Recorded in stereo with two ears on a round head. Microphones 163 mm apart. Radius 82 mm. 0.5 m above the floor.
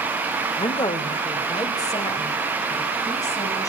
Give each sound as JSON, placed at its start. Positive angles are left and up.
{"t": 0.6, "sound": "a woman speaking", "side_deg": 25, "distance_m": 1.1}